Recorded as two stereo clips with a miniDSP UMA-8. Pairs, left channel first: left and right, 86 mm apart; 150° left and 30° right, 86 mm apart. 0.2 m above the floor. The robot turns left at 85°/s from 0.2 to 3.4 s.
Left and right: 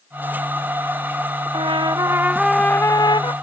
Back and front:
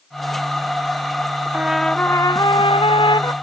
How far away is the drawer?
I don't hear a drawer.